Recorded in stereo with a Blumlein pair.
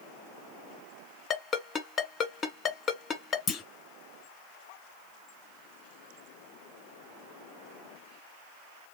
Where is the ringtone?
25° left, 1.5 m.